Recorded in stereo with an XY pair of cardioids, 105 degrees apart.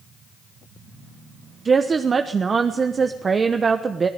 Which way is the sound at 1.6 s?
35° right.